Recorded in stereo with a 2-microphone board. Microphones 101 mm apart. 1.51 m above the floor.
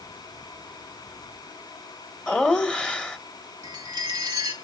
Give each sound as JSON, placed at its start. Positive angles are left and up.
{"t": 2.3, "sound": "laughter", "side_deg": 10, "distance_m": 1.8}
{"t": 3.6, "sound": "a chime", "side_deg": -40, "distance_m": 3.0}